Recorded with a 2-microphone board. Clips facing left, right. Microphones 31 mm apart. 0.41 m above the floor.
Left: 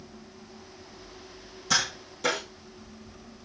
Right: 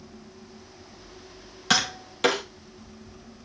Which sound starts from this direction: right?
Tapping, at 1.7 s.